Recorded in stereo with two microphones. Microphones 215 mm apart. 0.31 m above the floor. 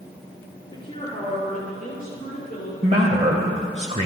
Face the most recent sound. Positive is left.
turn(degrees=-30)  # may be behind; listen again after turning